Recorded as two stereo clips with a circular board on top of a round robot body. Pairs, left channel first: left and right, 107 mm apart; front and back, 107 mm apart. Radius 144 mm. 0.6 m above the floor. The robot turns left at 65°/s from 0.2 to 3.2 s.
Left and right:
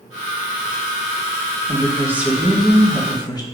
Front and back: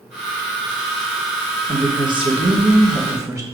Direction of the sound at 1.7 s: 135° right.